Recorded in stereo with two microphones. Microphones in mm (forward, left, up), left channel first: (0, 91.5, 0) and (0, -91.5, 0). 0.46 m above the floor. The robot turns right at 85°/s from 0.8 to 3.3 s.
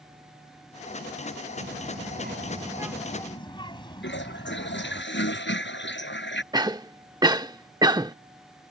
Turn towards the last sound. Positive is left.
turn(degrees=-20)  # may be behind; listen again after turning